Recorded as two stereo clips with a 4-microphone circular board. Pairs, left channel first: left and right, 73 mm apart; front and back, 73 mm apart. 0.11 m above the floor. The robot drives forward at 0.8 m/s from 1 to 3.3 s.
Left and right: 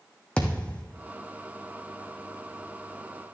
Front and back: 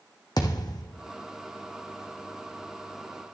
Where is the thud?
15° left, 1.6 m.